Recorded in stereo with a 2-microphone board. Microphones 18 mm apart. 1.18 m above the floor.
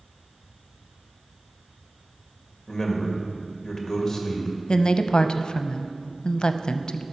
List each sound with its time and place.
2.7 s a man speaking: 20° left (ahead or behind), 2 m
4.7 s a woman speaking: 65° left (ahead or behind), 0.6 m